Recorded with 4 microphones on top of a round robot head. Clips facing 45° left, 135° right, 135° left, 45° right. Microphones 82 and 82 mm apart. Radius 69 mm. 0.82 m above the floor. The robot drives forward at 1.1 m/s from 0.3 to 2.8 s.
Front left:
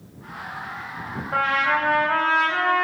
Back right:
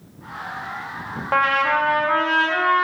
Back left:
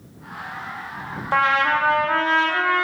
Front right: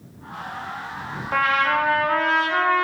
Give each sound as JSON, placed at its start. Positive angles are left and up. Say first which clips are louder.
{"t": 1.3, "sound": "a trumpet", "louder": "back right 3 dB, back left 1 dB", "azimuth_deg": -155, "distance_m": 0.6}